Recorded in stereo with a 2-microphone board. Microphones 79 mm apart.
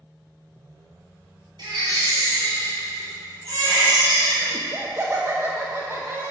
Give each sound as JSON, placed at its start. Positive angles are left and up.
{"t": 1.6, "sound": "a baby crying", "side_deg": -70, "distance_m": 2.5}
{"t": 4.5, "sound": "laughter", "side_deg": -30, "distance_m": 0.7}